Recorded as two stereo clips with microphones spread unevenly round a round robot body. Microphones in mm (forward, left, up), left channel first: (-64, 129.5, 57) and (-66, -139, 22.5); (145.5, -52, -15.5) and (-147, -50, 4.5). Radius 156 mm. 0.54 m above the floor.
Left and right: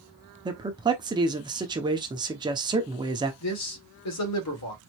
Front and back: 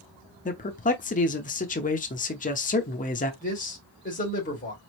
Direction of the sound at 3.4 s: 60° left.